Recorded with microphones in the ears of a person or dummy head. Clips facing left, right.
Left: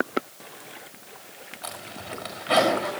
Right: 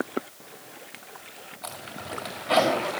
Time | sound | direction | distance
1.6 | a zipper | 15° left (ahead or behind) | 4.5 m